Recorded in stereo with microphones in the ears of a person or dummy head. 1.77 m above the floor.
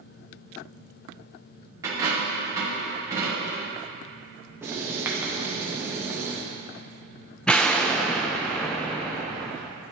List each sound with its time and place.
1.8 s a dropped coin: 20° right (ahead or behind), 2 m
4.6 s writing: 15° right (ahead or behind), 1.0 m
7.5 s an explosion: 5° left (ahead or behind), 0.5 m